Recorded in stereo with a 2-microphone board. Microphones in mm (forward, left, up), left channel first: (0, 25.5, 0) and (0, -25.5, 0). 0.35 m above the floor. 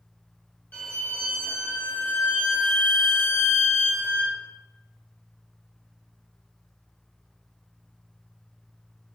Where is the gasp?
No gasp in this recording.